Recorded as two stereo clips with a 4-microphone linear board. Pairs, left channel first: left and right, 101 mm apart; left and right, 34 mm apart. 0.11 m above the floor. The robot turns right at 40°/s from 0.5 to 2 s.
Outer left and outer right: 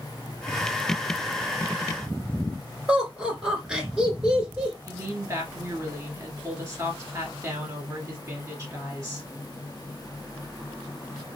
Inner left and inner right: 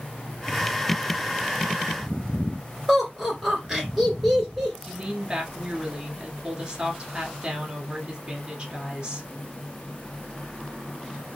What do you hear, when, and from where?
2.9 s laughter: 10° right (ahead or behind), 1.6 m
4.9 s a woman speaking: 30° right (ahead or behind), 1.4 m